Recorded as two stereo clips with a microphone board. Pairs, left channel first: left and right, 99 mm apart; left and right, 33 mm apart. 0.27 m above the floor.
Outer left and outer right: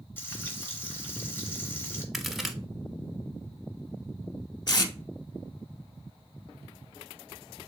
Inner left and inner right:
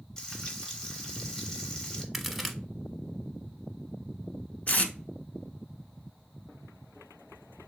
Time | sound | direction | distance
0.2 | frying | 20° left (ahead or behind) | 0.9 m
2.1 | a crack | centre (ahead or behind) | 0.5 m
4.7 | tape being pulled | 45° left (ahead or behind) | 0.5 m